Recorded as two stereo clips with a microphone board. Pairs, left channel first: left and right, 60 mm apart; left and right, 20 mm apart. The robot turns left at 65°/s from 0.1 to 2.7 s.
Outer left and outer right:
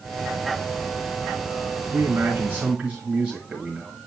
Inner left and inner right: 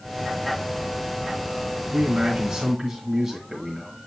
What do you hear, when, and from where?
1.8 s a man speaking: 100° right, 3 m; by 3.9 s 160° right, 3 m